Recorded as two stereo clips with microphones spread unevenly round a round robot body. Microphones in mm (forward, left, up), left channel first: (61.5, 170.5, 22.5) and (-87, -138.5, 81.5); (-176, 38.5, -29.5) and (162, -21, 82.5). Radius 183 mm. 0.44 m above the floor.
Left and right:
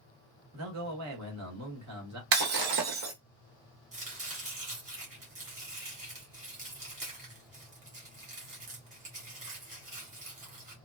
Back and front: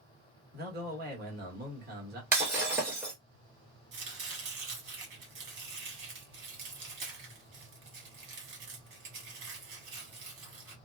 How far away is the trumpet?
I don't hear a trumpet.